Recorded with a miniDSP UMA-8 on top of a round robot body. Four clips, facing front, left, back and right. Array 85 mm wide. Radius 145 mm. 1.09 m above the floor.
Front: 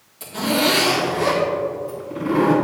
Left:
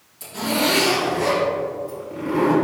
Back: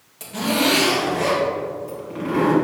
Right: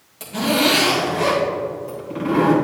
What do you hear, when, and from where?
0.2 s a zipper: 115° right, 3 m